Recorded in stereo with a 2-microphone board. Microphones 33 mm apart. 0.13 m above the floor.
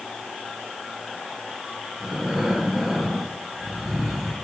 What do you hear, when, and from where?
2.0 s breathing: 10° right (ahead or behind), 1.6 m